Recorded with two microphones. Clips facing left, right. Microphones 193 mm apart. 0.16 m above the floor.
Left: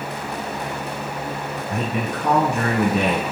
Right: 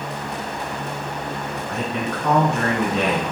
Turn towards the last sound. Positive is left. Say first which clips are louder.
# left 1 dB
turn(degrees=20)  # may be behind; listen again after turning